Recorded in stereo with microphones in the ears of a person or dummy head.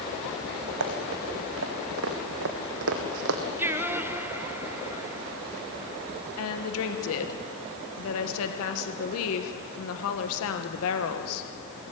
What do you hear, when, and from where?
0.8 s running footsteps: 65° right (ahead or behind), 5 m; by 3.4 s 60° right (ahead or behind), 3.5 m
3.6 s singing: 10° right (ahead or behind), 1.0 m
6.4 s a woman speaking: 80° left, 1.5 m